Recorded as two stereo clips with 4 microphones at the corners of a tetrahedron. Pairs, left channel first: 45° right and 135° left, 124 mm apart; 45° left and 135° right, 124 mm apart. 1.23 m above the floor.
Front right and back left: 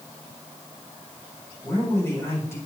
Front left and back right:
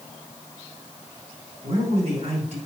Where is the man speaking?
115° right, 5.5 m.